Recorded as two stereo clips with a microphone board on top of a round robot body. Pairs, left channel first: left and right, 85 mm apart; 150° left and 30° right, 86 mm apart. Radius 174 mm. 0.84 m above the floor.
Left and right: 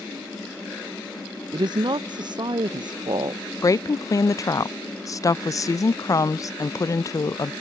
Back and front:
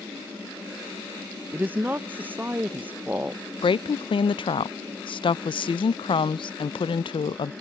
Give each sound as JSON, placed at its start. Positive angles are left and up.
{"t": 1.5, "sound": "a woman speaking", "azimuth_deg": -95}
{"t": 3.6, "sound": "a woman speaking", "azimuth_deg": 140}